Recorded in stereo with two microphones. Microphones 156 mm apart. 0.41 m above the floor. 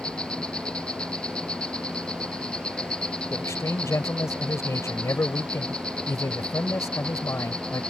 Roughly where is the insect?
Centre.